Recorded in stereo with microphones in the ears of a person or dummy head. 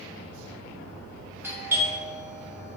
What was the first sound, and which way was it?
A doorbell, 10° right (ahead or behind).